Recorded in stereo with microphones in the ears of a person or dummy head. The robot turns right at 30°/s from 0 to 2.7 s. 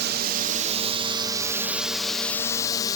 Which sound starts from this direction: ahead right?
A drone, at 0.0 s.